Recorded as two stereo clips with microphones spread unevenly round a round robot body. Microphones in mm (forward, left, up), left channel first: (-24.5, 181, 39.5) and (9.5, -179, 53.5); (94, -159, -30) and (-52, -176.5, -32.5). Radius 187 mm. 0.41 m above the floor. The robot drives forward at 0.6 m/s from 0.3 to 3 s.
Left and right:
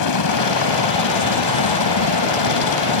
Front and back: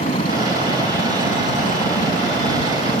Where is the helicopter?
65° left; by 3.0 s 70° left.